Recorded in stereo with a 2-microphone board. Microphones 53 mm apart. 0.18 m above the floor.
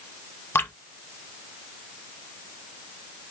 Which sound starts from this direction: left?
Dripping, at 0.6 s.